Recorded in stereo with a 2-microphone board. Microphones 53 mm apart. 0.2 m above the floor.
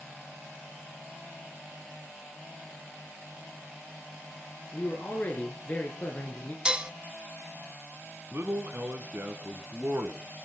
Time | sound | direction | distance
4.7 | a man speaking | 35° left (ahead or behind) | 3 m
6.7 | dishes clattering | 20° right (ahead or behind) | 0.9 m
8.3 | a man speaking | 45° right (ahead or behind) | 1.9 m